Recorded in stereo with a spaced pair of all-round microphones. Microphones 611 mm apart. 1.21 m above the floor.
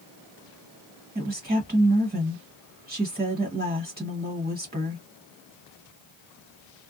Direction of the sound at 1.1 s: 10° right (ahead or behind).